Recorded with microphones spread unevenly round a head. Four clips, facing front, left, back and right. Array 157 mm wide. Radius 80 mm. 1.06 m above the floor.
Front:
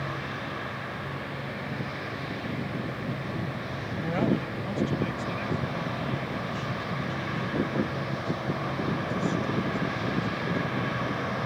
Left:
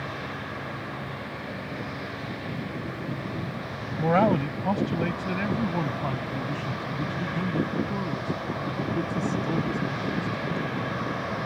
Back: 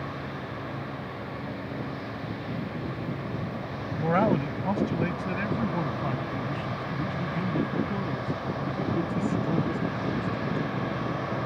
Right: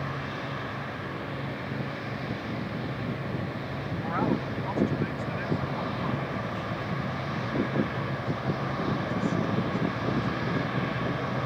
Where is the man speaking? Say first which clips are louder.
Left 7 dB, back 4 dB; 110° left; by 10.7 s 135° left.